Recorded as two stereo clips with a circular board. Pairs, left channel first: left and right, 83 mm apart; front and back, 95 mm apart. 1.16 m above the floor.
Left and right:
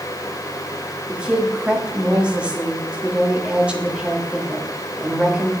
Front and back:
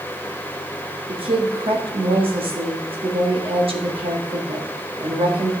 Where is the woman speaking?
165° right, 1.9 m.